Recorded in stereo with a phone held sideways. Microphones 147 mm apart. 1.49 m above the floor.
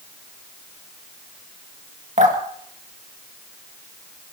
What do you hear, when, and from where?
2.2 s dripping: 55° right (ahead or behind), 2.5 m